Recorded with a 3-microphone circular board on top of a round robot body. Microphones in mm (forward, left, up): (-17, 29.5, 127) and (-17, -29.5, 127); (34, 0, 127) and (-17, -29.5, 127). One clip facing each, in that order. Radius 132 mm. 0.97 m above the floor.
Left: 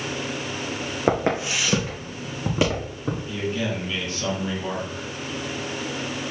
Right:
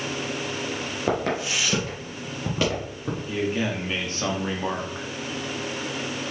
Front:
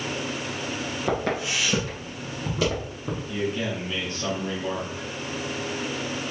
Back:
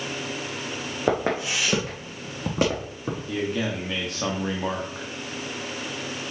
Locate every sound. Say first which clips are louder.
1.1 s footsteps: left 3 dB, back 3 dB; 150° left, 1.9 m; by 3.2 s 170° left, 3.5 m
3.3 s a man speaking: right 3 dB, back 1 dB; 145° right, 1.8 m